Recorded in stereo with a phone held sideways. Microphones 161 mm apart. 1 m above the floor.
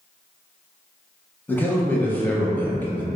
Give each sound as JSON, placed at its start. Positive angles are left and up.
{"t": 1.5, "sound": "a man speaking", "side_deg": 10, "distance_m": 0.7}